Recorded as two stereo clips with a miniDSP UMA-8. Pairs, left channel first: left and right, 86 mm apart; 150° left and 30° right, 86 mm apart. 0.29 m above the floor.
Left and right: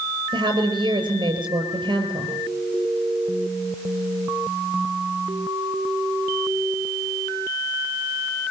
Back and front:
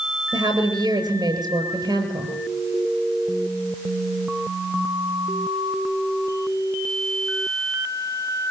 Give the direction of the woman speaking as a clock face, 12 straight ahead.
2 o'clock.